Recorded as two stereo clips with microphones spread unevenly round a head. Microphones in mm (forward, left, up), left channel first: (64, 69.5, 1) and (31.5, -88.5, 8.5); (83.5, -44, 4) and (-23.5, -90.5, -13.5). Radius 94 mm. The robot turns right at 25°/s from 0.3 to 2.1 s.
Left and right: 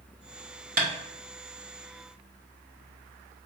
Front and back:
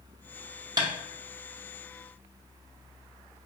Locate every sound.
0.8 s tapping: 125° right, 1.0 m; by 0.9 s 120° right, 1.0 m